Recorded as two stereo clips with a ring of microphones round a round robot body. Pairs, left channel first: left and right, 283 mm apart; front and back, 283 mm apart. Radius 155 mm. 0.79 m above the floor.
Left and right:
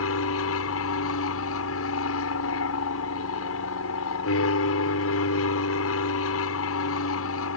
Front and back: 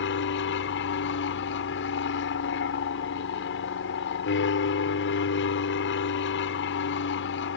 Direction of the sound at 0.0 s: 50° left.